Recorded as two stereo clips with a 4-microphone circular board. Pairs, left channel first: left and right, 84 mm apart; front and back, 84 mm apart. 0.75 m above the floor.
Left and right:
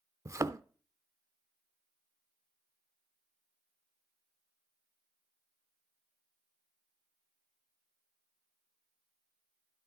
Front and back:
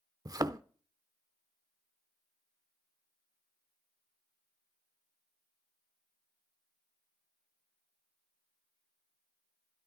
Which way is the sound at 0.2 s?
140° right.